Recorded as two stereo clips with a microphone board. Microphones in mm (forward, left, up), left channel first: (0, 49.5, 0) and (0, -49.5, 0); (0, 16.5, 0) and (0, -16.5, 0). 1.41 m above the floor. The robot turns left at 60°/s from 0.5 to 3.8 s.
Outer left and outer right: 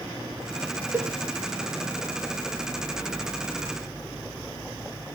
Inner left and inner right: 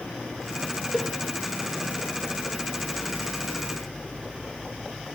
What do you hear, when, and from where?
0.9 s a cowbell: 25° right (ahead or behind), 0.8 m; by 1.1 s 10° right (ahead or behind), 0.8 m